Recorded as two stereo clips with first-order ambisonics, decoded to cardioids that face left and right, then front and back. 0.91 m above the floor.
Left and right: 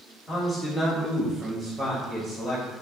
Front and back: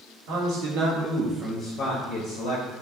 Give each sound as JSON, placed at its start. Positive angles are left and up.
{"t": 0.3, "sound": "a man speaking", "azimuth_deg": 175, "distance_m": 1.3}